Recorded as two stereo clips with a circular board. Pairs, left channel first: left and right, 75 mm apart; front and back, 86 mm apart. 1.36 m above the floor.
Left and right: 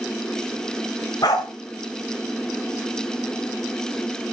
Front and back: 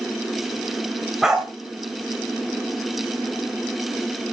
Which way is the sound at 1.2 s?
95° left.